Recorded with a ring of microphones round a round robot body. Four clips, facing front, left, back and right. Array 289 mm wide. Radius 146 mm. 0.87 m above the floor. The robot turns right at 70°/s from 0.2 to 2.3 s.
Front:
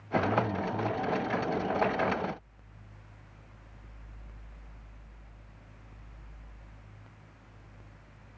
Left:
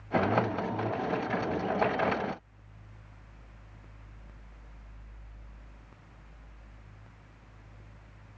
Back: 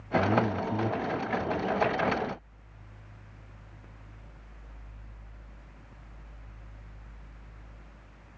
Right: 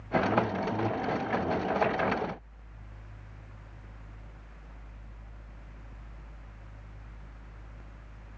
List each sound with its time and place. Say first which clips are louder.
0.1 s a man speaking: even, back 2 dB; 155° left, 4.5 m; by 1.9 s 85° right, 4.5 m